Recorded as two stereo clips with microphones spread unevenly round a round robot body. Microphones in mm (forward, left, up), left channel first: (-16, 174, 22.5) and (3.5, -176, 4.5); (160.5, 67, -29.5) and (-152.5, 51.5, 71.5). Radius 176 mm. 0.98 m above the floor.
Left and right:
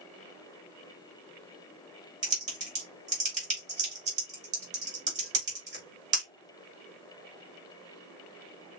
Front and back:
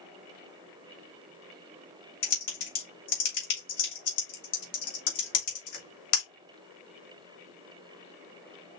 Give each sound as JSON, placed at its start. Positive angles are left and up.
{"t": 2.2, "sound": "typing on a keyboard", "azimuth_deg": -15, "distance_m": 3.0}